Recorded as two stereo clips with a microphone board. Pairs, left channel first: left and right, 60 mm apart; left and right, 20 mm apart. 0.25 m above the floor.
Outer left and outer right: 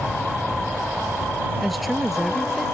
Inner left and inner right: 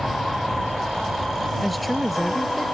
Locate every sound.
1.6 s a woman speaking: centre (ahead or behind)